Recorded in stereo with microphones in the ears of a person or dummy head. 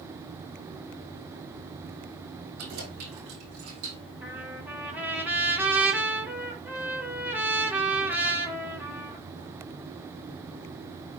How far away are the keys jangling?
About 4 m.